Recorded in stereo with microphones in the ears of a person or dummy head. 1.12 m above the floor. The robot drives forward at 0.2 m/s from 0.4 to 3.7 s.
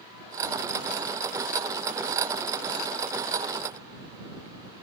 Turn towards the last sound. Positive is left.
No sound to turn to.